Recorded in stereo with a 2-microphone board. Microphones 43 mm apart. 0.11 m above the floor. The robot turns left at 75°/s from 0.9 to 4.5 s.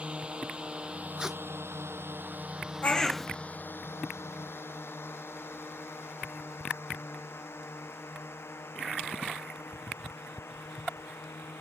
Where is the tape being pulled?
20° right (ahead or behind); by 1.4 s 5° right (ahead or behind).